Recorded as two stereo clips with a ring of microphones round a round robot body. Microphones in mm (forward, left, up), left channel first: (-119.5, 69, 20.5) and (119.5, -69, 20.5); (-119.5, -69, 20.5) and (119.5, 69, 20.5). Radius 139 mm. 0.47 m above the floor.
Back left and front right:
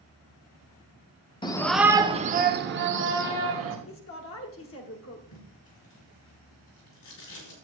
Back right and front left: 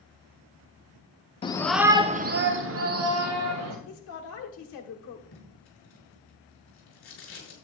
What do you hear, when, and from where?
1.4 s a shout: 175° right, 0.9 m; by 3.8 s 10° left, 2 m
3.9 s a woman speaking: straight behind, 1.5 m
5.3 s tape being pulled: 170° left, 5 m